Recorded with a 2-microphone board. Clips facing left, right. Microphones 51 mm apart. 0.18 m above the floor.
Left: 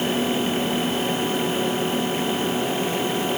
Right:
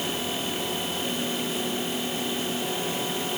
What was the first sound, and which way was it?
Only background noise.